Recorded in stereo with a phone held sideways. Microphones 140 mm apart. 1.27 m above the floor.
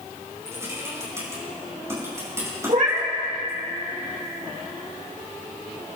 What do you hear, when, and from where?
0.5 s typing on a keyboard: 20° right (ahead or behind), 5.5 m
2.7 s a cat meowing: 65° right (ahead or behind), 2 m